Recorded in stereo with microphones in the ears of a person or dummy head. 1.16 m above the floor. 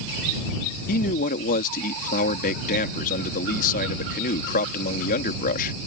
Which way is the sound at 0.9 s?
45° left (ahead or behind).